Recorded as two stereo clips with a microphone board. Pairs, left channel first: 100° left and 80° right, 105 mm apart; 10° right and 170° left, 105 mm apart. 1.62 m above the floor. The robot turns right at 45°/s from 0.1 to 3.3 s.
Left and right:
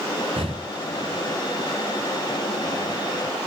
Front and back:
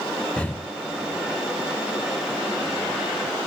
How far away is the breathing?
About 0.8 m.